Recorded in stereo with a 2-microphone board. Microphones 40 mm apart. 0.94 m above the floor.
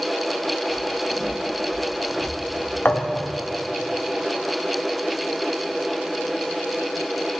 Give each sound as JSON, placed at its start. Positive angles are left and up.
{"t": 0.7, "sound": "footsteps", "side_deg": -10, "distance_m": 6.5}
{"t": 2.9, "sound": "a thud", "side_deg": 55, "distance_m": 1.5}